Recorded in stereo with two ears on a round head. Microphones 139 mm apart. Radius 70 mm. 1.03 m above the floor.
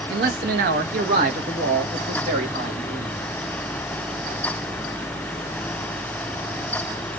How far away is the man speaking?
About 1.2 m.